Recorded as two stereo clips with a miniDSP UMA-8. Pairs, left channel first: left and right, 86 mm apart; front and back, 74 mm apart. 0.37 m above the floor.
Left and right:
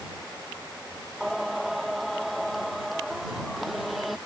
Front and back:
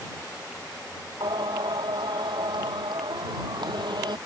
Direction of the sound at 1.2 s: Straight behind.